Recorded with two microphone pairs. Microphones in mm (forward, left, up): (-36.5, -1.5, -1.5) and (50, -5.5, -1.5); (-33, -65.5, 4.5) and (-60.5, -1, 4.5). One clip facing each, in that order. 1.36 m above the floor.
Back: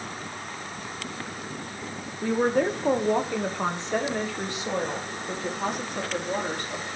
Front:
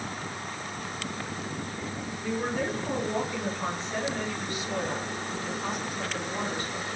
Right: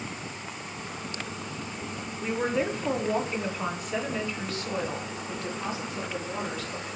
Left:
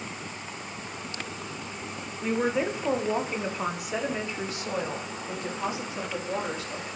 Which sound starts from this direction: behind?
A woman speaking, at 2.2 s.